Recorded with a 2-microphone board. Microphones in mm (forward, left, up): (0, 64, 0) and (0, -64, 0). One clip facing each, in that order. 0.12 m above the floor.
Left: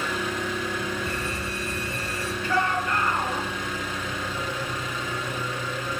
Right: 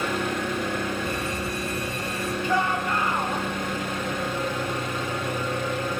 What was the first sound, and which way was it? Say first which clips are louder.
An engine running: right 2 dB; 60° right (ahead or behind).